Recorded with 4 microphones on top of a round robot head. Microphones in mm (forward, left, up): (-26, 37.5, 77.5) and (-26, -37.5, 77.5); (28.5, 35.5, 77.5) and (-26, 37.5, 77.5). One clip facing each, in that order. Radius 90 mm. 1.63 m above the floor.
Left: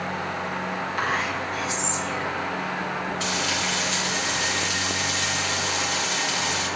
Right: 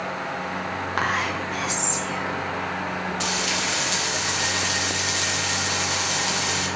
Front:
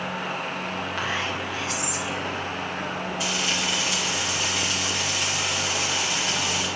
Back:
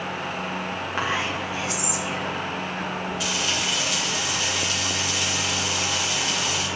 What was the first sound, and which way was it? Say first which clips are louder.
Whispering: right 2 dB, back 3 dB; 110° right.